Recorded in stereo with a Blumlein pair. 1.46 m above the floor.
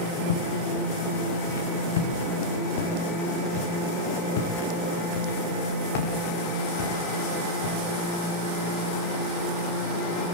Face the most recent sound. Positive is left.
turn(degrees=45)